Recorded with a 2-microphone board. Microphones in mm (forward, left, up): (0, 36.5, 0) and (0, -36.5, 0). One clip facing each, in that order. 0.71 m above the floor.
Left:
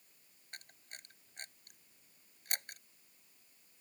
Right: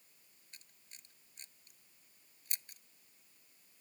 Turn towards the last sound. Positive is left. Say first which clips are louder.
# left 10 dB
turn(degrees=60)  # may be behind; listen again after turning